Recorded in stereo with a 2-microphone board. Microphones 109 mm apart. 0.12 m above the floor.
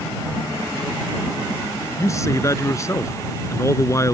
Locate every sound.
2.0 s a man speaking: 30° left (ahead or behind)